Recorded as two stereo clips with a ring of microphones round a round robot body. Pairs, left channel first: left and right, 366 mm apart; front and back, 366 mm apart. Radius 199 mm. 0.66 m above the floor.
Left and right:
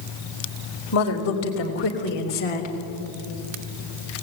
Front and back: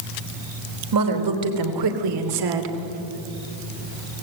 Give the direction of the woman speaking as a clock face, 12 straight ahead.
7 o'clock.